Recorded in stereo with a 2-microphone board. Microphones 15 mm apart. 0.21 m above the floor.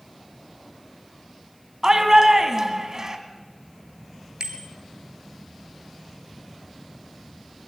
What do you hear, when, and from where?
1.8 s a shout: 40° right (ahead or behind), 2 m
4.4 s a bicycle bell: 65° right (ahead or behind), 2.5 m